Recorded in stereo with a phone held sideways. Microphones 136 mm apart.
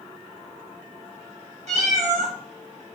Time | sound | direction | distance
1.7 | a cat meowing | 55° right (ahead or behind) | 1.1 m